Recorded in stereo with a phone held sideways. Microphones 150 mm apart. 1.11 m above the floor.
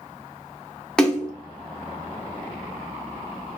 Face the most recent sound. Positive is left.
turn(degrees=5)  # may be behind; listen again after turning